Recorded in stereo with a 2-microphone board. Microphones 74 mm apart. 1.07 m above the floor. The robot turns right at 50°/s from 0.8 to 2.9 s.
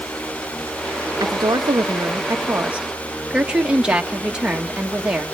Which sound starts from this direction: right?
A woman speaking, at 1.2 s.